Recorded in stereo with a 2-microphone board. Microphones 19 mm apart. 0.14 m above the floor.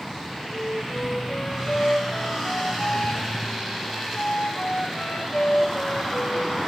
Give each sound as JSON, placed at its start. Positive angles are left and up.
{"t": 0.5, "sound": "a flute", "side_deg": 65, "distance_m": 3.0}